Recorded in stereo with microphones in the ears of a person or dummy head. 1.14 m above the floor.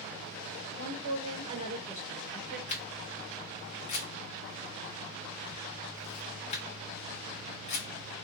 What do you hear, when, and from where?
0.8 s a woman speaking: 45° right (ahead or behind), 1.3 m; by 2.6 s 15° left (ahead or behind), 1.2 m
2.7 s a camera shutter: 35° left (ahead or behind), 0.9 m